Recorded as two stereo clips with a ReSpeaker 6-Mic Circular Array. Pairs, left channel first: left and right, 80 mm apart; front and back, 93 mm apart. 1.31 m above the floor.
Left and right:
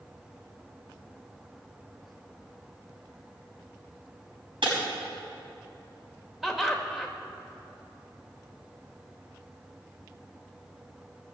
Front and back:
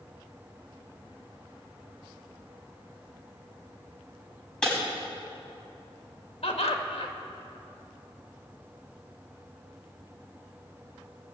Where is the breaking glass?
80° right, 5.5 m.